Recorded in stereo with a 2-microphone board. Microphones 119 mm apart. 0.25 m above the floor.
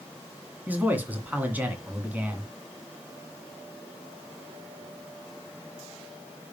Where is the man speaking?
15° right (ahead or behind), 2 m.